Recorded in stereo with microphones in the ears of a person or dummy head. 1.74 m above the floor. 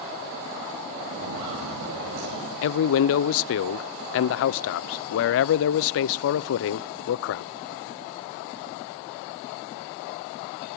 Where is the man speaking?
70° left (ahead or behind), 0.7 m.